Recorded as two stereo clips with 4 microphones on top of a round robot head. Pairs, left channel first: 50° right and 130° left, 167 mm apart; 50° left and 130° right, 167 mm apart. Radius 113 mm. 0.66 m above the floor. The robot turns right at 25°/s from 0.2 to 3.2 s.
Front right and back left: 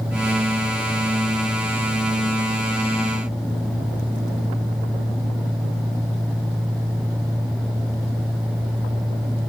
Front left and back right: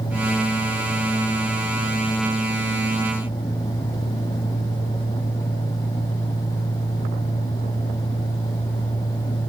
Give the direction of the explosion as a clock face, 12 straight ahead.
I don't hear an explosion.